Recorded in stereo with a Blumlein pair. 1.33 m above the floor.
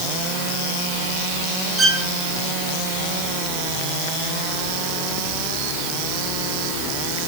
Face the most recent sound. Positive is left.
turn(degrees=-10)